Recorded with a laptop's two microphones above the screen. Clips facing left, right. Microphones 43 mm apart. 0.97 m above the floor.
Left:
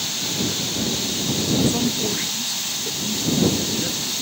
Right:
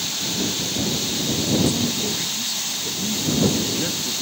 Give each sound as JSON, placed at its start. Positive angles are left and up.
{"t": 1.7, "sound": "a man speaking", "side_deg": 40}